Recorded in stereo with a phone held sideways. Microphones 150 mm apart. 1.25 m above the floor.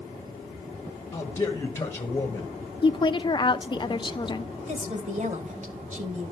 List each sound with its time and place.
1.1 s a man speaking: 20° left (ahead or behind), 1.4 m
2.8 s a woman speaking: 30° left (ahead or behind), 0.7 m
4.7 s a woman speaking: 55° right (ahead or behind), 1.6 m